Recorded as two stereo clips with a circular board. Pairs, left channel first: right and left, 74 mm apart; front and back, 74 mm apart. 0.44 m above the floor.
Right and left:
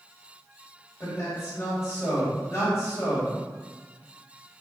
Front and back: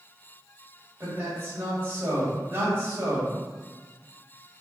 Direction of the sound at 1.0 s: 125° right.